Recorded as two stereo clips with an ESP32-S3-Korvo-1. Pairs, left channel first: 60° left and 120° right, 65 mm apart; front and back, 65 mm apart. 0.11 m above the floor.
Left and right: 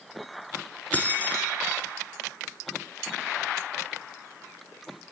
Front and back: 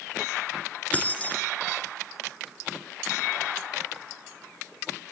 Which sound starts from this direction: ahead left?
Keys jangling, at 0.9 s.